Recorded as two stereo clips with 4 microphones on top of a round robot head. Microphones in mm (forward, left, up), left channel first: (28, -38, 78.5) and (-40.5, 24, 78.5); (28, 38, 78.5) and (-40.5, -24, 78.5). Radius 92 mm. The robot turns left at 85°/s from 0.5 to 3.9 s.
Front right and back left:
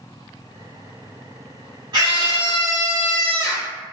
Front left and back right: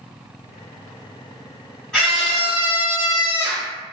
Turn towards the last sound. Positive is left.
turn(degrees=-45)